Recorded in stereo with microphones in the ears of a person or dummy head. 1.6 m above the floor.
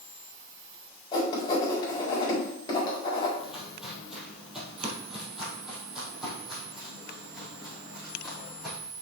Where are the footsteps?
5° right (ahead or behind), 3 m.